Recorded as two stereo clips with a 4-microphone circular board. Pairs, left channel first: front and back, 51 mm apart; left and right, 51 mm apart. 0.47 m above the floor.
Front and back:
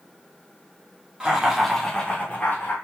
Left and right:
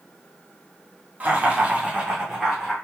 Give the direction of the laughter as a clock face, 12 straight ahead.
4 o'clock.